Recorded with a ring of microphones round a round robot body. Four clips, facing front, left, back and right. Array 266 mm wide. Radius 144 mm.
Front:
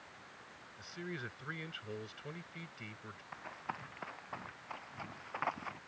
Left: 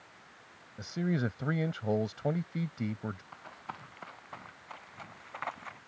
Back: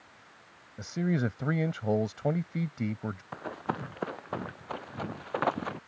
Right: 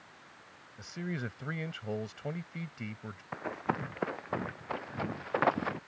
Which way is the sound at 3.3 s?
135° right.